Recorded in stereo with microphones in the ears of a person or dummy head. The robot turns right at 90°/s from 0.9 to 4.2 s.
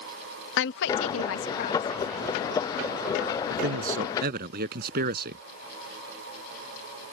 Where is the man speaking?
120° right; by 5.4 s 55° right.